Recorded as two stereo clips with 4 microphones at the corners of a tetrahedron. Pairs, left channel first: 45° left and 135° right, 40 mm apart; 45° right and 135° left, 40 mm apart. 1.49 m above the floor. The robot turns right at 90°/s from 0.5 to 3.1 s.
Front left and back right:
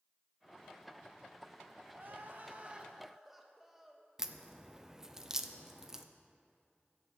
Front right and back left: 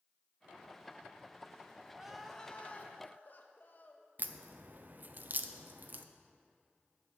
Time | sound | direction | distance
1.9 | crying | 155° right | 0.9 m
4.2 | a crack | 150° left | 0.5 m